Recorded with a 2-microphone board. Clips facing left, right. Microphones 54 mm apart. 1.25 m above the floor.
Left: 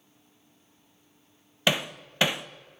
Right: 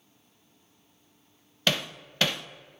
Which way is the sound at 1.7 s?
15° left (ahead or behind).